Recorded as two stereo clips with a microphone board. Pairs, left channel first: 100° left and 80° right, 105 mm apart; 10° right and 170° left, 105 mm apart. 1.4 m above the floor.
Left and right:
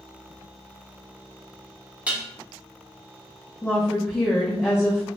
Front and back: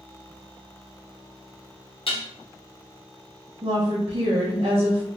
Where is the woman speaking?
165° left, 0.7 m.